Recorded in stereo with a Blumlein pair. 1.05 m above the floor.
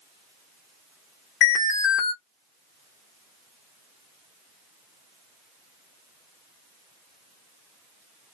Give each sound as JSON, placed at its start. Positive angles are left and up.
{"t": 1.4, "sound": "an alarm", "azimuth_deg": 35, "distance_m": 1.0}